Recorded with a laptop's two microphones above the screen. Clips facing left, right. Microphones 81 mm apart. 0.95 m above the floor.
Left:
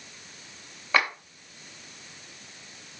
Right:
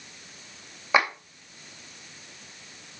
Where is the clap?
15° right (ahead or behind), 2.5 m.